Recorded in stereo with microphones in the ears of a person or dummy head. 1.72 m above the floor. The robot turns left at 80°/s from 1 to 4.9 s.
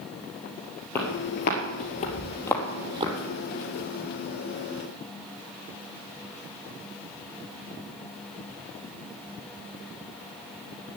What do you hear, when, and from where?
0.9 s footsteps: 15° left (ahead or behind), 2.5 m; by 3.1 s 35° right (ahead or behind), 3 m